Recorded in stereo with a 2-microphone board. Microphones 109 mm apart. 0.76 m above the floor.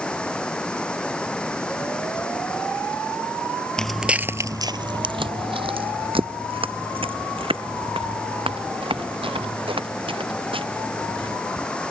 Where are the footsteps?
5° left (ahead or behind); by 11.4 s 55° right (ahead or behind).